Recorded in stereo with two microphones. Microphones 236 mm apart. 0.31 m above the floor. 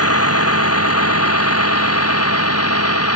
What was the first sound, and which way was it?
A vehicle, 80° left.